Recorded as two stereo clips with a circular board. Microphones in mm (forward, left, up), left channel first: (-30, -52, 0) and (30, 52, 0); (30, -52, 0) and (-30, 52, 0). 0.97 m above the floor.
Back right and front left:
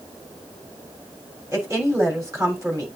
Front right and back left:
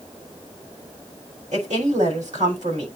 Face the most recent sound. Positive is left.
turn(degrees=125)